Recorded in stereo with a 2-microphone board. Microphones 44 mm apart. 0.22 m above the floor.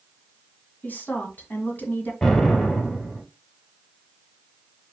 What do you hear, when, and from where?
0.8 s a woman speaking: 45° left (ahead or behind), 1.6 m
2.2 s an explosion: 20° left (ahead or behind), 2 m